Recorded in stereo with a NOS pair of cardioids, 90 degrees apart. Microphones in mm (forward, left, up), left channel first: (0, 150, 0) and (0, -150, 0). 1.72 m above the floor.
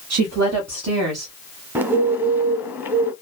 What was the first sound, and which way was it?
A woman speaking, 65° right.